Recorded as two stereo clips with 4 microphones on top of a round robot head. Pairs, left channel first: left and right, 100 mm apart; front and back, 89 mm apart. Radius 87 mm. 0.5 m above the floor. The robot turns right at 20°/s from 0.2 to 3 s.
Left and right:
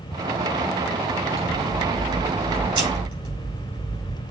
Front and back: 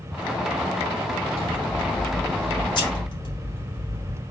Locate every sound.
1.4 s scissors: 65° right, 3 m; by 4.2 s 35° right, 3 m